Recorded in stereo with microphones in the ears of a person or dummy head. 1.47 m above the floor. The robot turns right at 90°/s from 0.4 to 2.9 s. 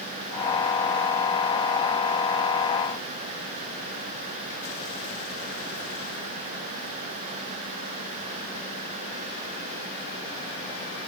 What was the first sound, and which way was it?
Only background noise.